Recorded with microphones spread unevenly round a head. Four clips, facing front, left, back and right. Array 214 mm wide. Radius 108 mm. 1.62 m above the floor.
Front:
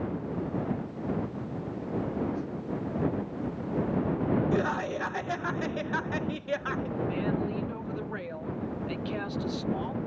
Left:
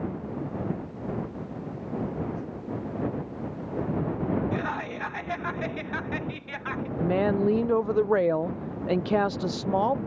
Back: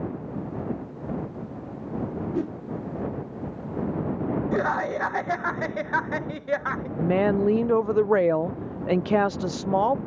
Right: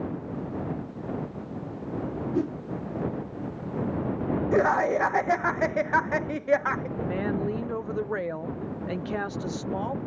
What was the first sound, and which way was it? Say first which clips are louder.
A whoosh: right 9 dB, back 7 dB; 130° right.